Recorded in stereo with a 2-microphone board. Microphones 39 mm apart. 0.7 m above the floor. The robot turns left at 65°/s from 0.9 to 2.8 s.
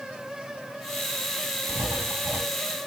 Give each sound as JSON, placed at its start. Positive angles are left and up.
{"t": 1.7, "sound": "writing", "azimuth_deg": -70, "distance_m": 3.0}